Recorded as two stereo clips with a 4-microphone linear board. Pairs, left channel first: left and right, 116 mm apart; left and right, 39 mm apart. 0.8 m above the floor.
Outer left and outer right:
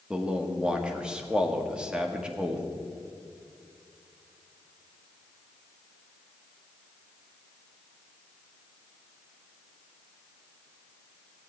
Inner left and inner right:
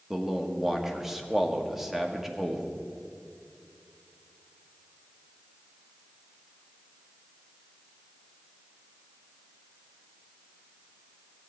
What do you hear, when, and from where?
0.1 s a man speaking: 10° right (ahead or behind), 1.1 m